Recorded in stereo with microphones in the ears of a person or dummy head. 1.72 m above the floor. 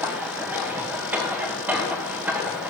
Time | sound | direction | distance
0.0 | a machine running | 10° right (ahead or behind) | 1.5 m